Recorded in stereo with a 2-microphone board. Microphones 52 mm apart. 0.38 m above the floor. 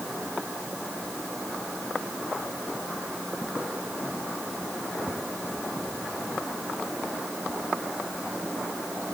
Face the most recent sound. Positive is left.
No sound to turn to.